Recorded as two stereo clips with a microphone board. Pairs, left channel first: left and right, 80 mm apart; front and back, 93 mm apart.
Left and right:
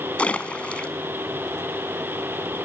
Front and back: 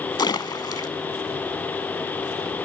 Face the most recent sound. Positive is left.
turn(degrees=20)